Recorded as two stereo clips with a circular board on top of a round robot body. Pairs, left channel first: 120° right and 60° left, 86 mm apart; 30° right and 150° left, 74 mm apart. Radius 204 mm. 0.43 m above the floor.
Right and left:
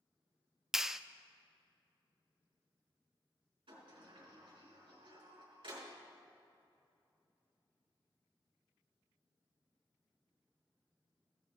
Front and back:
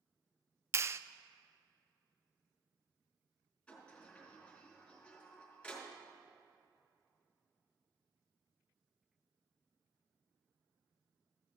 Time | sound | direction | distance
0.7 | a clap | 145° left | 0.6 m
3.7 | a sliding door | 45° left | 4 m